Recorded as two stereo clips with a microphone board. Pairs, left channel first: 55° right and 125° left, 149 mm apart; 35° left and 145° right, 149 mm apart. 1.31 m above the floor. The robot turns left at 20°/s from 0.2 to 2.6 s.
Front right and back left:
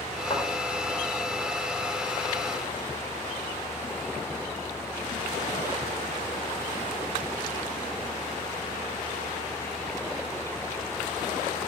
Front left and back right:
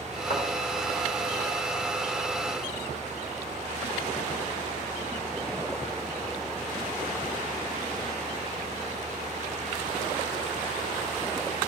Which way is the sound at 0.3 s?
5° left.